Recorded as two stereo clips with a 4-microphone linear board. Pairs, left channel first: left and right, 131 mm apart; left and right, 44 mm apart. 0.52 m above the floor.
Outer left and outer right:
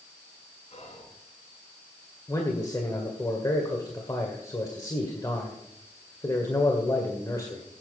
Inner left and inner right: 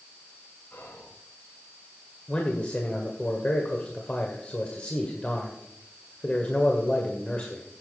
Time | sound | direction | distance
0.7 | whispering | 55° left (ahead or behind) | 5.5 m
2.3 | a man speaking | 25° left (ahead or behind) | 2.0 m